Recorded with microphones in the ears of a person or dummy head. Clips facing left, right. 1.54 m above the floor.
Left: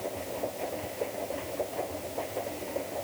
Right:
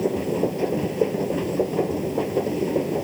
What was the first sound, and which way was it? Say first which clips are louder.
A machine running: right 12 dB; 85° right.